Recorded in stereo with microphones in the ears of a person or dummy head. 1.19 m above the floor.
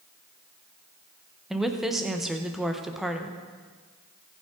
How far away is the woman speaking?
About 0.9 m.